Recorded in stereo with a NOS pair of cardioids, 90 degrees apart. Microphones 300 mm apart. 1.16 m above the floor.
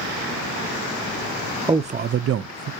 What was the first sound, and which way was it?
A man speaking, 15° right.